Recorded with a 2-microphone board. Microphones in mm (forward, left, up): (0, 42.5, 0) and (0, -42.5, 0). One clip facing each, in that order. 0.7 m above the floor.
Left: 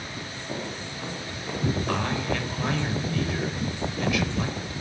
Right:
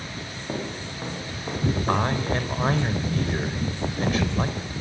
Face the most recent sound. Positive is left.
turn(degrees=-40)  # may be behind; listen again after turning